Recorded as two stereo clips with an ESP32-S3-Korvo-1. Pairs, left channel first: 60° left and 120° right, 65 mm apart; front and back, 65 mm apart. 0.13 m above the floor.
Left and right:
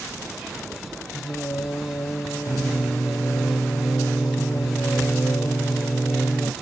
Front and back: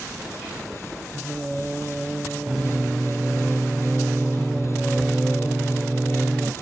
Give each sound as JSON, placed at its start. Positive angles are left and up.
{"t": 1.1, "sound": "singing", "azimuth_deg": 95, "distance_m": 0.5}